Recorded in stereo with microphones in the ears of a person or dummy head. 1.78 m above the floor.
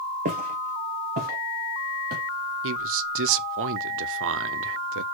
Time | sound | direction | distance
0.2 | footsteps | 40° right (ahead or behind) | 2.5 m
2.6 | a man speaking | 80° right | 0.8 m